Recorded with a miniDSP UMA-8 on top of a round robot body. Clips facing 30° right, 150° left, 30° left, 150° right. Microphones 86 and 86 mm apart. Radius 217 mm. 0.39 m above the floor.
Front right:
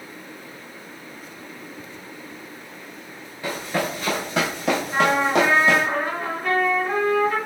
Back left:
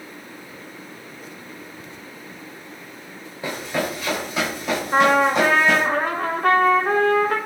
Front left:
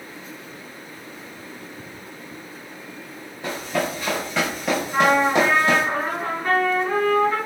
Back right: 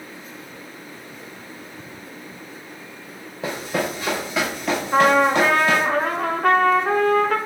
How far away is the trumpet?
About 0.6 m.